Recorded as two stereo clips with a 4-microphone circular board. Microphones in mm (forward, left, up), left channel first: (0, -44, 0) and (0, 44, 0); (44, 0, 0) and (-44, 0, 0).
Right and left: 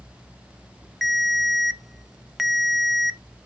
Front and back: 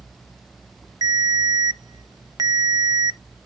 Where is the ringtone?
Straight behind, 0.5 m.